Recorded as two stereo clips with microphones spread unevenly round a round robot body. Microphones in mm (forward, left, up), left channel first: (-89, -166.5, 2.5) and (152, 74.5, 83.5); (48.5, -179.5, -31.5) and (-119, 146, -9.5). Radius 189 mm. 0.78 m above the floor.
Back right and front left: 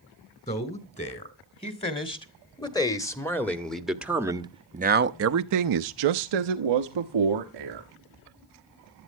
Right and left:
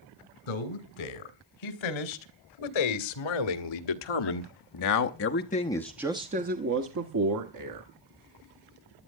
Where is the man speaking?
65° right, 3.5 m; by 7.9 s 75° left, 1.7 m.